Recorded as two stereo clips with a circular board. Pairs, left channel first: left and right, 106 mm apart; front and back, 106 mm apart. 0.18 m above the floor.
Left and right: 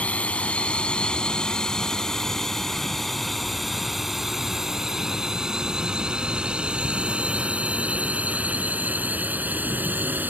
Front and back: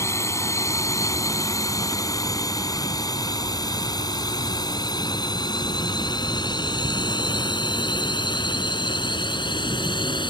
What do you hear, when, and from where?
0.0 s a drone: 25° left; by 10.3 s 25° right